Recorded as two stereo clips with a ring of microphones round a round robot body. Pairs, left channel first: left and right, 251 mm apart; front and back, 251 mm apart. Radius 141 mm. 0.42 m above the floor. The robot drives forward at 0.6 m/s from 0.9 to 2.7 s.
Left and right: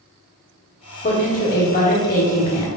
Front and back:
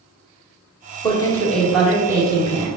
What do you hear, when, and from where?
1.0 s a woman speaking: 60° left, 1.4 m; by 2.7 s 130° left, 1.4 m